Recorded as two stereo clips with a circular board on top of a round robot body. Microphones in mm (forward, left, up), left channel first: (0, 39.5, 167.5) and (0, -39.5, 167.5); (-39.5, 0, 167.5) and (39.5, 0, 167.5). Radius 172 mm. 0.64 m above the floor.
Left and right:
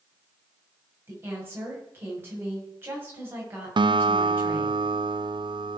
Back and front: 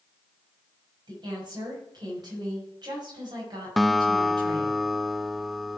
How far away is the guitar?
About 0.6 m.